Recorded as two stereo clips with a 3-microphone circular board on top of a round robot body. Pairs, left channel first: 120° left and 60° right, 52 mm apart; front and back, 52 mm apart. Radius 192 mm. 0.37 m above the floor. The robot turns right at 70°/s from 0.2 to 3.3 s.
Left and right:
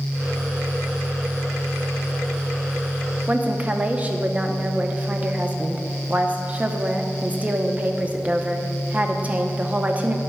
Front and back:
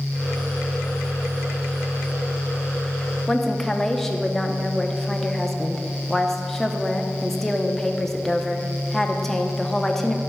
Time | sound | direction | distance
3.3 | a woman speaking | 80° right | 1.1 m